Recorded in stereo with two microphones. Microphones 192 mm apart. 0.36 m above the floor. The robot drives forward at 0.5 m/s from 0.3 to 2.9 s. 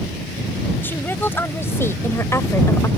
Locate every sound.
0.8 s a woman speaking: 10° left (ahead or behind); by 2.9 s 15° left (ahead or behind)